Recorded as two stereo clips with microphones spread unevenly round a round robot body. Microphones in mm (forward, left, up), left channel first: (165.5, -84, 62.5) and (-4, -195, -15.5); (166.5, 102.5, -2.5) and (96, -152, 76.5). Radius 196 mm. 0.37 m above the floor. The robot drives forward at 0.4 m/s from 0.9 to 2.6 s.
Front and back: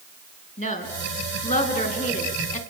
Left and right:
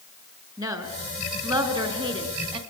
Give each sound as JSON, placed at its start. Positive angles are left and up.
{"t": 0.6, "sound": "a woman speaking", "azimuth_deg": -25, "distance_m": 4.5}